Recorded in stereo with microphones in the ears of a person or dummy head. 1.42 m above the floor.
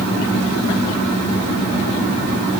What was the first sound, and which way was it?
Only background noise.